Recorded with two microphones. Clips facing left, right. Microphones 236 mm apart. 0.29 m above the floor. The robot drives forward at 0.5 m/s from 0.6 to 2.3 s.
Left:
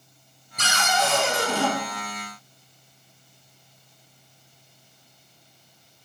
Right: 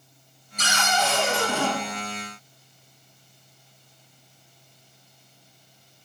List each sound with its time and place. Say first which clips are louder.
0.6 s a cupboard door: left 1 dB; 60° left (ahead or behind), 0.7 m; by 1.7 s 35° left (ahead or behind), 1.0 m